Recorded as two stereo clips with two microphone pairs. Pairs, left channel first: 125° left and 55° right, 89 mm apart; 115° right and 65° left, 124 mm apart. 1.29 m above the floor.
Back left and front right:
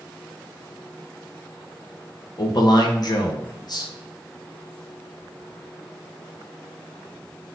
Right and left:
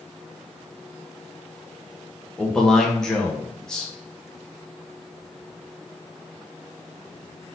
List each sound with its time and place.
2.4 s a man speaking: 160° left, 1.1 m